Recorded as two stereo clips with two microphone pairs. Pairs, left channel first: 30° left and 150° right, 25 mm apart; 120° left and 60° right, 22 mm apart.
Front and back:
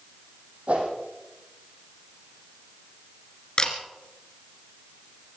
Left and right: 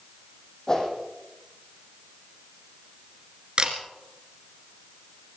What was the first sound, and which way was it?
A whoosh, 175° right.